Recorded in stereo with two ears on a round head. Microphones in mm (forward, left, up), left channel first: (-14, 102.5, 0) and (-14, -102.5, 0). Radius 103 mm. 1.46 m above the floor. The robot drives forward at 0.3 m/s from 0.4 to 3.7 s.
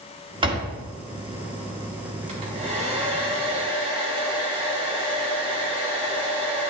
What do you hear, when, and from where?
0.4 s a door slam: 25° right (ahead or behind), 1.4 m; by 0.8 s 20° right (ahead or behind), 1.5 m
2.3 s a hair dryer: 30° right (ahead or behind), 2.5 m; by 6.7 s 25° right (ahead or behind), 3 m